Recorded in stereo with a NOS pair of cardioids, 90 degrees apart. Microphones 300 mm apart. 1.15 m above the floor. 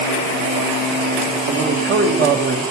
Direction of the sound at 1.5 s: 40° right.